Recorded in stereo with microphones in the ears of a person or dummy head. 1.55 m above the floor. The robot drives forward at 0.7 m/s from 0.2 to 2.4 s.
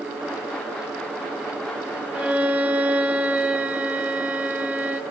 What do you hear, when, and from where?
2.1 s a violin: 10° right (ahead or behind), 2.5 m